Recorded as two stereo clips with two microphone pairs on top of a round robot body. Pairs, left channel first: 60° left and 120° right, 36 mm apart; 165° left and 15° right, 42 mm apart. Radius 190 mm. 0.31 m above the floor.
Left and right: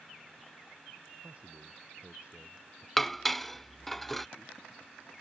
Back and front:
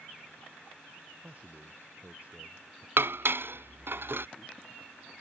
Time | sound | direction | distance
1.2 | a man speaking | 70° right | ?
3.0 | dishes clattering | 25° right | ?